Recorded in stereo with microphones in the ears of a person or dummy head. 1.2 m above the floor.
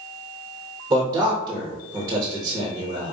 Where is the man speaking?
20° right (ahead or behind), 1.0 m.